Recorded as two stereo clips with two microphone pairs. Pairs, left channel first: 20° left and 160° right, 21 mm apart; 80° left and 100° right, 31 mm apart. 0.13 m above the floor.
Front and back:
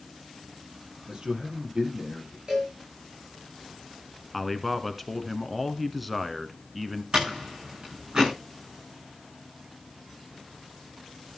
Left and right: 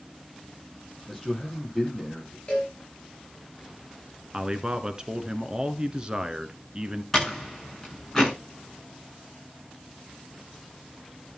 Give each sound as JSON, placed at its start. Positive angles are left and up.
{"t": 1.1, "sound": "a man speaking", "azimuth_deg": 170, "distance_m": 4.5}
{"t": 2.5, "sound": "a cowbell", "azimuth_deg": 150, "distance_m": 8.0}
{"t": 4.3, "sound": "a man speaking", "azimuth_deg": -90, "distance_m": 1.3}
{"t": 7.1, "sound": "a door slam", "azimuth_deg": 165, "distance_m": 9.5}